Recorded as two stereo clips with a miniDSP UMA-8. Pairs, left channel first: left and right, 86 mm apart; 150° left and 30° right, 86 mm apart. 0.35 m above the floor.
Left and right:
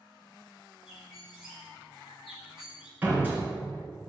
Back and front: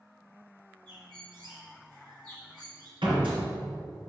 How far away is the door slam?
About 3 m.